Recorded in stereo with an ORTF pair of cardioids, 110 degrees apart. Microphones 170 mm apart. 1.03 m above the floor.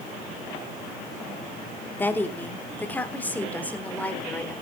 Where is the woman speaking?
10° left, 3 m.